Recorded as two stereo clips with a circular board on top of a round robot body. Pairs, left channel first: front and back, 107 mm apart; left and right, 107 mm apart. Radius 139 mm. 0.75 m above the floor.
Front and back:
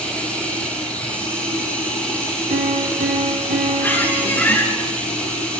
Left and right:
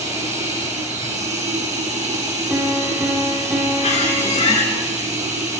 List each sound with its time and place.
0.0 s running water: 75° right, 7 m
2.5 s a piano: 170° right, 4.5 m
3.8 s a squeak: 70° left, 9 m